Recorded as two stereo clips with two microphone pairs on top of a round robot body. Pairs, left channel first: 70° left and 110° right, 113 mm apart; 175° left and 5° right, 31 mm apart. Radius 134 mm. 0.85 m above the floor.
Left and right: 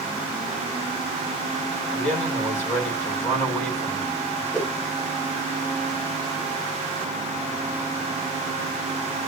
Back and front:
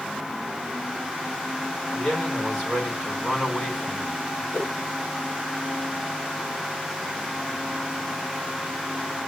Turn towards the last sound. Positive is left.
turn(degrees=150)